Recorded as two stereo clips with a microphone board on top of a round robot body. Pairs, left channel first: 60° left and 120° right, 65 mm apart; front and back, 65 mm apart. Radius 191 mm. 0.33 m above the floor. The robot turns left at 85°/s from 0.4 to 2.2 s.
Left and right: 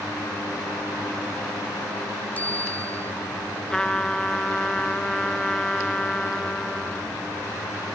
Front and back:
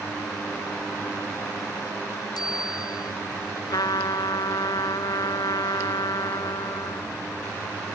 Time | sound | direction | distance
2.4 | a bicycle bell | 5° right | ?
3.7 | a trumpet | 20° right | ?